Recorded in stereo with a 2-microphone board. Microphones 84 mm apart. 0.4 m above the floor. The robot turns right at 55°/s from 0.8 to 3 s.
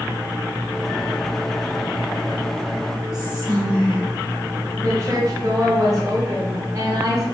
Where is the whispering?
10° right (ahead or behind), 1.5 m.